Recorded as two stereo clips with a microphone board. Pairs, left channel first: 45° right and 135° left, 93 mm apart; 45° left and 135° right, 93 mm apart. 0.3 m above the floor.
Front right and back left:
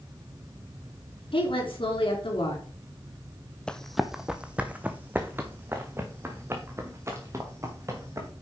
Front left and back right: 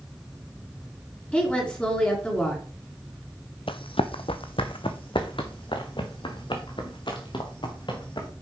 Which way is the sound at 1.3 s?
30° right.